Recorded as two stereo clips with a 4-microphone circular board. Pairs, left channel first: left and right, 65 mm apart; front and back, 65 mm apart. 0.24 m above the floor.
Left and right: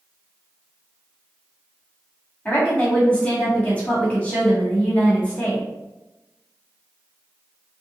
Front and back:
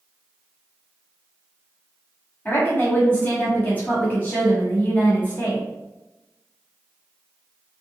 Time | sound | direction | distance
2.5 | a woman speaking | 35° left | 1.7 m